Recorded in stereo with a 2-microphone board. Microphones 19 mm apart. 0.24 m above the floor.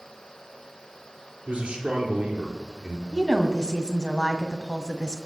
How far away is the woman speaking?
About 1.9 m.